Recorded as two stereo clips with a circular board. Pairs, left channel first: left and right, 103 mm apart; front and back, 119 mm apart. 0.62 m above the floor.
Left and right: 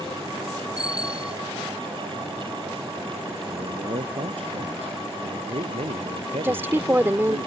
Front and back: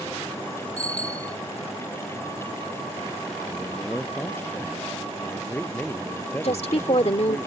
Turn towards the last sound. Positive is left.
turn(degrees=-20)